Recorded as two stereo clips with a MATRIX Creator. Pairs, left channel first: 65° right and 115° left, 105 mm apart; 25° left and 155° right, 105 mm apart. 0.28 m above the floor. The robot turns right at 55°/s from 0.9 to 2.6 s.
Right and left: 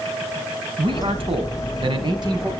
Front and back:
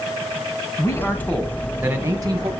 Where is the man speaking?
80° left, 2.5 m; by 2.5 s 165° left, 2.5 m.